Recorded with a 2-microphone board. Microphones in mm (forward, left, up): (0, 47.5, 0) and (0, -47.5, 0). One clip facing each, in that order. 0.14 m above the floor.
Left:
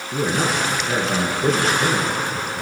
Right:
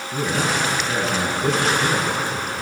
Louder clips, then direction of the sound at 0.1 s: Left 1 dB; 35° left (ahead or behind).